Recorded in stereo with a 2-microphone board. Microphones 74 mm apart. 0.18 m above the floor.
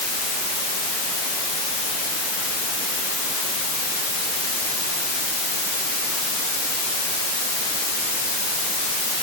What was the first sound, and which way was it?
Only background noise.